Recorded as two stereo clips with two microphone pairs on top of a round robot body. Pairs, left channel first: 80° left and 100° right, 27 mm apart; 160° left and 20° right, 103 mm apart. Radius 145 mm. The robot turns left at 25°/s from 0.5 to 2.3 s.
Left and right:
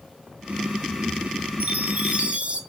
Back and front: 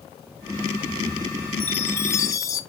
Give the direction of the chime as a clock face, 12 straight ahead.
4 o'clock.